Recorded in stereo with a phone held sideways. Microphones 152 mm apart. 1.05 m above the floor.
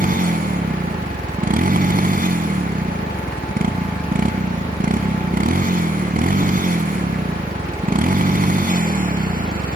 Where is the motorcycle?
70° right (ahead or behind).